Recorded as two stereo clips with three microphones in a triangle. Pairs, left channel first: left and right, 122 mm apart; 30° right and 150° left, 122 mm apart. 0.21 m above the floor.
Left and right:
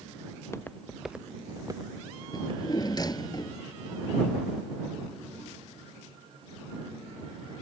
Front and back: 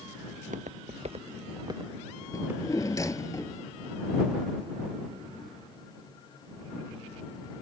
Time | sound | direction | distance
0.3 | footsteps | 150° left | ?
2.3 | a drawer | 35° left | ?